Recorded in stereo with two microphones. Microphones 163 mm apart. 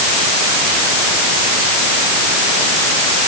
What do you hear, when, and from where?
Only background noise.